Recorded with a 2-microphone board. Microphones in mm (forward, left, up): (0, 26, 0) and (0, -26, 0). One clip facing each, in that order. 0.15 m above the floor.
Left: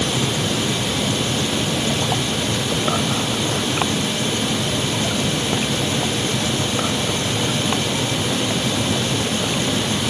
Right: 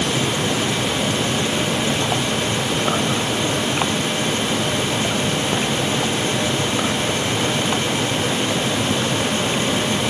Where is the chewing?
I don't hear chewing.